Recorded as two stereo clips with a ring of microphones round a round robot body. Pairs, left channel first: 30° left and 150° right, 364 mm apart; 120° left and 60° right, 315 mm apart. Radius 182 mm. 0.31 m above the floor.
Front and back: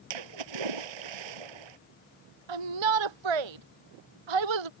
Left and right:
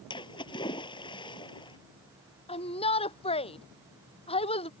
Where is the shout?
165° right.